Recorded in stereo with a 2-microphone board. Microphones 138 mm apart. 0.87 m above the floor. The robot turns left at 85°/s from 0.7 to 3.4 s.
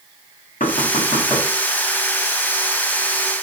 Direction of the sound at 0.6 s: 70° left (ahead or behind).